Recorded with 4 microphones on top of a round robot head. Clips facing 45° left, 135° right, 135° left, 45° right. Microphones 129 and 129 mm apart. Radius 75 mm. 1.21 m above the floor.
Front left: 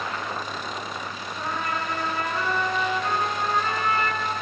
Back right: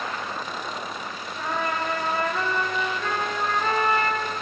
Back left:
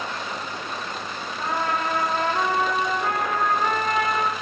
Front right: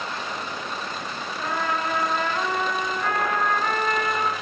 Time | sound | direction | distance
1.4 | a trumpet | 165° right | 4.5 m